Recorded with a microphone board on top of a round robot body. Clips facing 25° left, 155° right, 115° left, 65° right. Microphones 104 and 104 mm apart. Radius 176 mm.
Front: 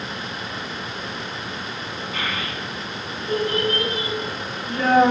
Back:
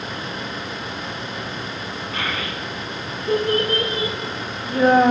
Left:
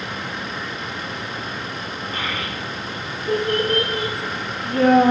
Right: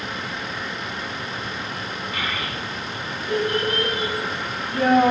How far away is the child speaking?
About 6.5 m.